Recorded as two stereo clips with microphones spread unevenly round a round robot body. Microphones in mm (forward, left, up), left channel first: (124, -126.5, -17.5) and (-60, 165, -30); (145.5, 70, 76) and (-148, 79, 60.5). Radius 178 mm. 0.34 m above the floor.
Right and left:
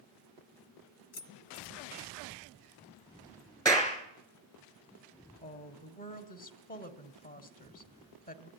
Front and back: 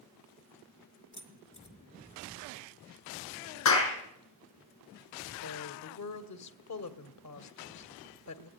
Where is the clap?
20° left, 5 m.